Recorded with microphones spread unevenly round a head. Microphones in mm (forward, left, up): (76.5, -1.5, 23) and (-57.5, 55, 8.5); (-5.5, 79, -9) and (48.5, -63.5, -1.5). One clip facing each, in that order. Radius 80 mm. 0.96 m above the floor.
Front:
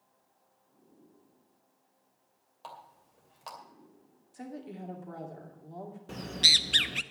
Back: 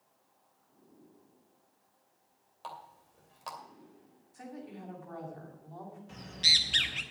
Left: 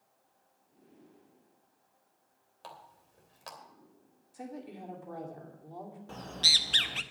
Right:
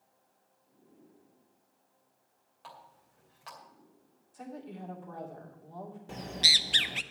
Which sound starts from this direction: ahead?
A bird, at 6.1 s.